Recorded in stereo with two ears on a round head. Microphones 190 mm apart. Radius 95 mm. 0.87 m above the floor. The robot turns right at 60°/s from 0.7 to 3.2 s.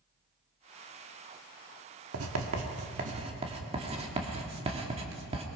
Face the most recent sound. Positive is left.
turn(degrees=-25)  # may be behind; listen again after turning